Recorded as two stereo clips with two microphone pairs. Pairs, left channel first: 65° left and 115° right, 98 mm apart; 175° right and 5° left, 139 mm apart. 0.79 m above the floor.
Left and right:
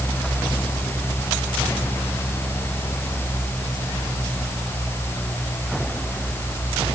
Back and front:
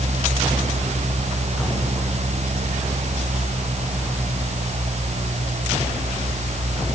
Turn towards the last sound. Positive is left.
No sound to turn to.